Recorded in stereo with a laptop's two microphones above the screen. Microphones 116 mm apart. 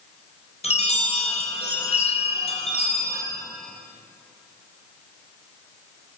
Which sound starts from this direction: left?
A chime, at 0.6 s.